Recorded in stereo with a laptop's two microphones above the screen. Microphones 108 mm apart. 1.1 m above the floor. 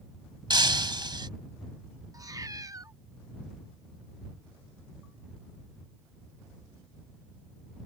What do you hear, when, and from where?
0.5 s breaking glass: 45° right (ahead or behind)
2.1 s a cat meowing: 35° right (ahead or behind)